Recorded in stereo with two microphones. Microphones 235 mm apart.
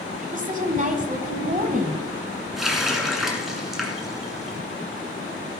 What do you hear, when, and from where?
0.2 s a woman speaking: 35° right (ahead or behind), 1.4 m
2.6 s a running tap: centre (ahead or behind), 1.8 m